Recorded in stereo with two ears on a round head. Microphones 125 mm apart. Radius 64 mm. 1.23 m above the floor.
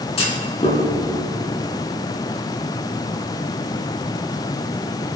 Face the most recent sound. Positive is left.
turn(degrees=40)  # may be behind; listen again after turning